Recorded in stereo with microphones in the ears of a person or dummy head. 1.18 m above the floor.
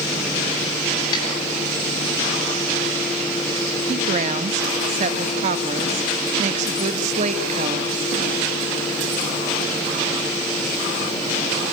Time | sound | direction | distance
1.1 | a snare drum | 30° left (ahead or behind) | 9.5 m
3.9 | a woman speaking | 40° right (ahead or behind) | 1.4 m